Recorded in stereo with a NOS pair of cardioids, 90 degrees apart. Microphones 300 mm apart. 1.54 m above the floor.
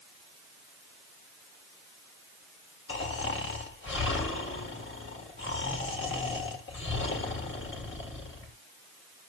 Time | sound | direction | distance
2.9 | snoring | 40° left | 3 m